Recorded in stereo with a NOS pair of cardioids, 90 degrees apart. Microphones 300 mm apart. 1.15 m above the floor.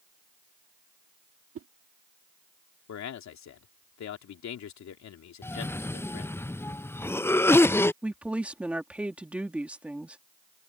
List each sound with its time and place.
1.6 s a whoosh: 50° right
2.9 s a man speaking: 65° left
5.4 s a cough: 10° left
8.0 s a woman speaking: 5° right